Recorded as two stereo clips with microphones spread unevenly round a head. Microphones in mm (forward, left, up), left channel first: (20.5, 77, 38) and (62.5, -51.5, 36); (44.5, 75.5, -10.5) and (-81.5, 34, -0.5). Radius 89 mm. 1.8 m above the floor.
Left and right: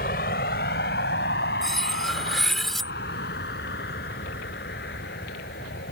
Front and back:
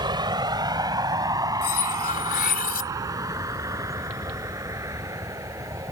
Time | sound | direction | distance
0.0 | a vehicle | 145° left | ?
1.6 | cutlery clinking | 20° left | ?